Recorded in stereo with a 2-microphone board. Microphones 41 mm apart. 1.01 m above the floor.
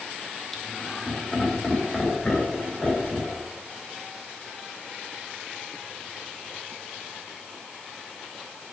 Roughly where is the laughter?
Centre.